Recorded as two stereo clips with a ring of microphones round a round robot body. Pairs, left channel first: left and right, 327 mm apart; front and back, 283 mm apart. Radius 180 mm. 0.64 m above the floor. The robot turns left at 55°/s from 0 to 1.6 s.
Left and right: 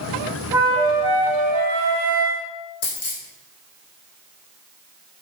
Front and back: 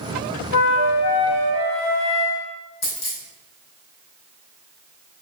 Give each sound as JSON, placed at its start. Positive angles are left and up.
{"t": 0.5, "sound": "a flute", "azimuth_deg": -10, "distance_m": 0.6}
{"t": 2.8, "sound": "a dropped coin", "azimuth_deg": 30, "distance_m": 3.5}